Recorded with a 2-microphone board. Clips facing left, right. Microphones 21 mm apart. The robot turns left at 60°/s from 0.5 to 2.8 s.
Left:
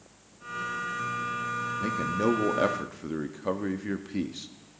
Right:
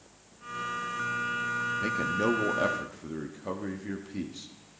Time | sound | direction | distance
1.8 | a man speaking | 160° right | 1.1 m